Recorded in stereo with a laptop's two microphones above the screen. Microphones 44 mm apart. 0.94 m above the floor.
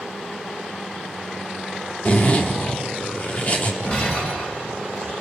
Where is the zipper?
35° left (ahead or behind), 1.8 m.